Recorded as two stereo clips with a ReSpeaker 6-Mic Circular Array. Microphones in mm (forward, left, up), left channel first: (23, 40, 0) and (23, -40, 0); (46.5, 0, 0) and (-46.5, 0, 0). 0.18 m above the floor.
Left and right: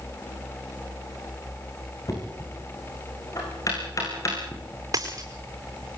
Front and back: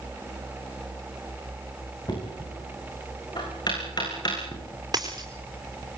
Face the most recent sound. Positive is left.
turn(degrees=-135)